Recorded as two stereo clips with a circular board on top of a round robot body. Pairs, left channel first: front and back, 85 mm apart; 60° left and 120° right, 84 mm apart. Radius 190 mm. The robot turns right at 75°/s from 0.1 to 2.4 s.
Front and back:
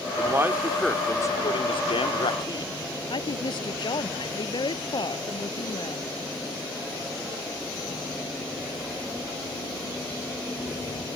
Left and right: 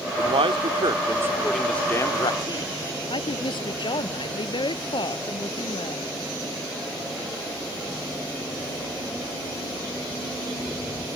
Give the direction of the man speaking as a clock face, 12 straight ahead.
4 o'clock.